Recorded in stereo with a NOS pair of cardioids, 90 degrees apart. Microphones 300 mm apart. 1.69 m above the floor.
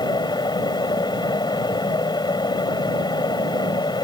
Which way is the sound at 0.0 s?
15° left.